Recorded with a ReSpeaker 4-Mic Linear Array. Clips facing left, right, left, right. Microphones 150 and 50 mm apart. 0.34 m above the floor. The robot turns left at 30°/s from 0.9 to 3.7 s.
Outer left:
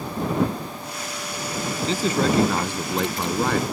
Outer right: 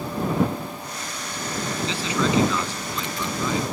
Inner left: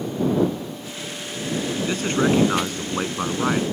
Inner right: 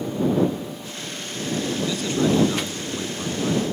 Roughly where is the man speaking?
Behind left.